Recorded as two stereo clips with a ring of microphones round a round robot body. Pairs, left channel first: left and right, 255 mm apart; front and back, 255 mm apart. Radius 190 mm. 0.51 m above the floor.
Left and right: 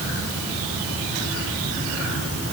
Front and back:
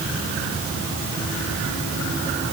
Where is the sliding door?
I don't hear a sliding door.